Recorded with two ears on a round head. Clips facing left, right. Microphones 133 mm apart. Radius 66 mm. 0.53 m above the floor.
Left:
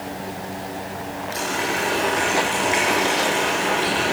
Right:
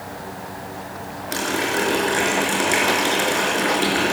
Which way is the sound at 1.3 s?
70° right (ahead or behind).